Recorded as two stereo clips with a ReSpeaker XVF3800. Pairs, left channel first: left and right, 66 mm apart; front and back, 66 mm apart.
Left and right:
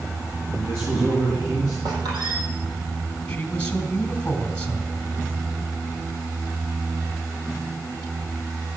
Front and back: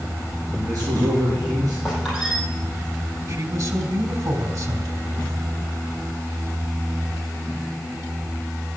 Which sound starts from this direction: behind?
A man speaking, at 3.3 s.